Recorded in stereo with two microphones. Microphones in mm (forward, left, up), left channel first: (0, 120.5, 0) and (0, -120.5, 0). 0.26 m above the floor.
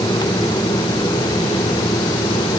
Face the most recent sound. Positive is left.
No sound to turn to.